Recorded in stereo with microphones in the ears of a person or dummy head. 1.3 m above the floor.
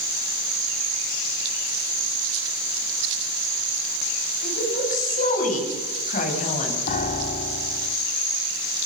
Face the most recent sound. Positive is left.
turn(degrees=50)  # may be behind; listen again after turning